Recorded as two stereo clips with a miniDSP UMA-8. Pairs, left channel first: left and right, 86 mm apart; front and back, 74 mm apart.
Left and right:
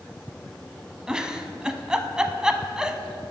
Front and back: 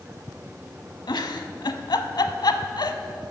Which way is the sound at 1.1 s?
10° right.